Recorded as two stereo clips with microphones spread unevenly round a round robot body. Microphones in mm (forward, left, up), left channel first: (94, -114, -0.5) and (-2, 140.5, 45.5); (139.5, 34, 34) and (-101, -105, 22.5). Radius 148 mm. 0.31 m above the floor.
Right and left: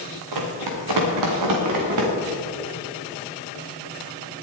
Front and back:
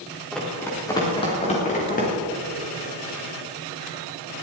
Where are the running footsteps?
120° left, 3.5 m; by 2.1 s 95° left, 4.5 m.